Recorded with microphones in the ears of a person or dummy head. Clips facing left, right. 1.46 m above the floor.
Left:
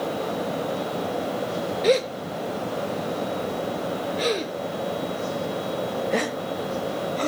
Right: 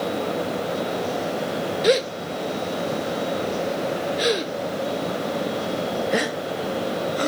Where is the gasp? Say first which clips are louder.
Right 1 dB; 10° right (ahead or behind), 0.8 m.